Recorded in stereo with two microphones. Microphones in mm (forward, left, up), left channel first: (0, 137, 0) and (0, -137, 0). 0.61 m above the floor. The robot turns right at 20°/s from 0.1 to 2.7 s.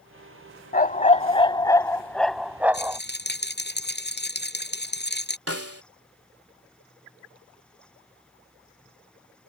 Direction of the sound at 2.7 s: 40° left (ahead or behind).